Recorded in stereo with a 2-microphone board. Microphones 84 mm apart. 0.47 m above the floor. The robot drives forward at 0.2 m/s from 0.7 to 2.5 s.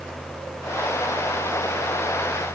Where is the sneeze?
I don't hear a sneeze.